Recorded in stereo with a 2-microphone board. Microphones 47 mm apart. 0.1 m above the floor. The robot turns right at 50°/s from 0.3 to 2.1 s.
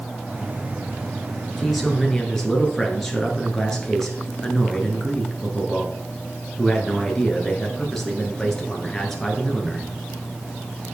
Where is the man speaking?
5° right (ahead or behind), 1.7 m; by 9.9 s 5° left (ahead or behind), 1.7 m.